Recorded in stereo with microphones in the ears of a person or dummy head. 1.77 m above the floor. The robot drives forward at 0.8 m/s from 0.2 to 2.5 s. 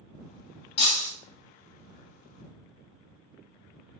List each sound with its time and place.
0.8 s breaking glass: 35° left (ahead or behind), 1.9 m; by 1.1 s 40° left (ahead or behind), 1.7 m